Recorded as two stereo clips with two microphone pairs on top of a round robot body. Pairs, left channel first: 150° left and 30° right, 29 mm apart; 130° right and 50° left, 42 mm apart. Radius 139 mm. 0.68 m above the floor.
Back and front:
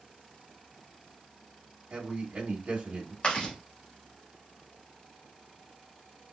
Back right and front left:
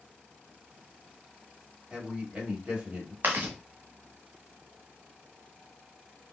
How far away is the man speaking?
About 1.9 m.